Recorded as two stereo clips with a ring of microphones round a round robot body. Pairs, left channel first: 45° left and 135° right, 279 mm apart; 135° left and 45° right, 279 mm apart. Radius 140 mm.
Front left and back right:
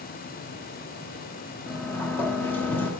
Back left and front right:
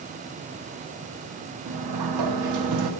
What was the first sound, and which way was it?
A sliding door, 40° right.